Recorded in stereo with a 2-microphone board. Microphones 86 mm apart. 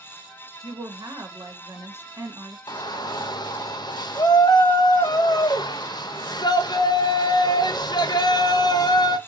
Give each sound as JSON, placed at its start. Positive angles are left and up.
{"t": 0.6, "sound": "a woman speaking", "side_deg": -45, "distance_m": 1.1}
{"t": 2.7, "sound": "a shout", "side_deg": 55, "distance_m": 0.7}